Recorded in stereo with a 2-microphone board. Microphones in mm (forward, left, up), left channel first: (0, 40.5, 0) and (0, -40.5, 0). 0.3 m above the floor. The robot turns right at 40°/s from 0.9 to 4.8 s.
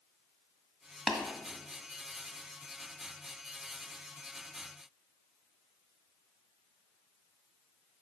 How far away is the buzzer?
I don't hear a buzzer.